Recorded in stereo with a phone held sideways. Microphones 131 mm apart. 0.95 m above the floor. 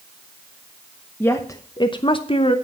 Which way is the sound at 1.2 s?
15° left (ahead or behind).